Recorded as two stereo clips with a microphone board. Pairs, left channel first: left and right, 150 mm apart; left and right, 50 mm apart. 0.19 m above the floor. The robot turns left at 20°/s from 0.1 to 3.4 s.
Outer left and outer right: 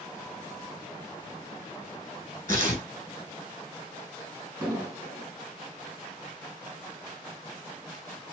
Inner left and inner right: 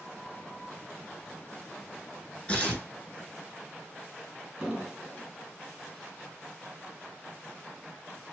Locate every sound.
2.5 s tearing paper: 20° left (ahead or behind), 1.9 m; by 2.9 s 25° left (ahead or behind), 1.9 m
4.6 s an explosion: 10° right (ahead or behind), 2 m